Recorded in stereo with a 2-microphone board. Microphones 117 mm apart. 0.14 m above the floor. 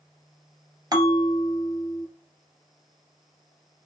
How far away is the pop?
No pop in this recording.